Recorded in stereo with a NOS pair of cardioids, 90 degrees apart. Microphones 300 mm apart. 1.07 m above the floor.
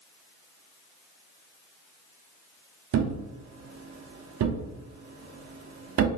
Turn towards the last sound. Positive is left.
turn(degrees=-60)